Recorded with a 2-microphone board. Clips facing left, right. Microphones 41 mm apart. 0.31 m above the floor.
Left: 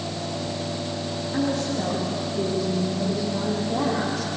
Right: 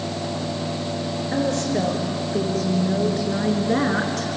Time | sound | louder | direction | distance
1.3 | a woman speaking | right 2 dB | 80° right | 7 m